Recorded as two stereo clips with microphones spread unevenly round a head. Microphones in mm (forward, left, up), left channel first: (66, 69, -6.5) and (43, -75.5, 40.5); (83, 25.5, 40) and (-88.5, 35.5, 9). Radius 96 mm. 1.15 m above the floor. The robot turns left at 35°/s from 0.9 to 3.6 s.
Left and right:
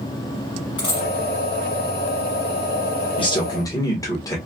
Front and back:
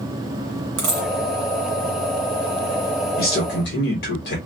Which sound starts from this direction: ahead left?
A man speaking, at 3.2 s.